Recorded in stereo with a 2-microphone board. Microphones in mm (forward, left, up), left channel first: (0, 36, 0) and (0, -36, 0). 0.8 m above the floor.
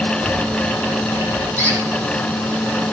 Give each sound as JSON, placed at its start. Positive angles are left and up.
{"t": 0.1, "sound": "a child speaking", "side_deg": -20, "distance_m": 3.0}
{"t": 1.6, "sound": "a squeak", "side_deg": 30, "distance_m": 9.0}